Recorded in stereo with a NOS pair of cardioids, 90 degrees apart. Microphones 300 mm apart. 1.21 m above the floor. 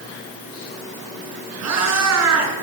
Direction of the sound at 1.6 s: 60° right.